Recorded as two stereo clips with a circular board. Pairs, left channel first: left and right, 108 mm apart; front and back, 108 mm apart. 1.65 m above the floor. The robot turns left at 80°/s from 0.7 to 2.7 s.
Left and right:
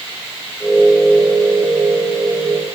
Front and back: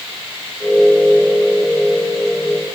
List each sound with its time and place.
Only background noise.